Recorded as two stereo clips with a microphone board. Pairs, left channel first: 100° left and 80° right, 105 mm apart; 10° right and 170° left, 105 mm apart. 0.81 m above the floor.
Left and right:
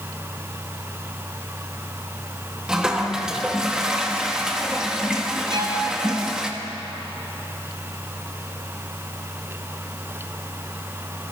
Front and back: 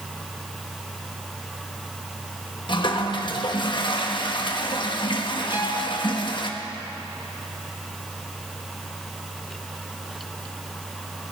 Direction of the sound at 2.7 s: Straight ahead.